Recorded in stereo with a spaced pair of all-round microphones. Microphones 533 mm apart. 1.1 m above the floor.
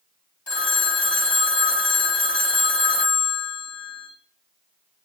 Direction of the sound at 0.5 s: 50° left (ahead or behind).